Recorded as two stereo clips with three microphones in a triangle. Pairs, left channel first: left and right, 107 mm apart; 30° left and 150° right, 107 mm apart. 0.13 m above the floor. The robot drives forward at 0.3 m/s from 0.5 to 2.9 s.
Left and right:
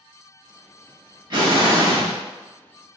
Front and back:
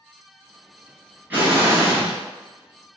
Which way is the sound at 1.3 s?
85° right.